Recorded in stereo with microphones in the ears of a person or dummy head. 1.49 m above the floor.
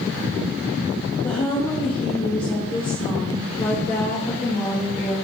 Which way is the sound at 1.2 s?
25° left (ahead or behind).